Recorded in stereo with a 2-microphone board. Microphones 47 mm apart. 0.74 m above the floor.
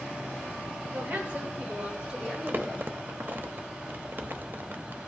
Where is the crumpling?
45° right (ahead or behind), 0.8 m.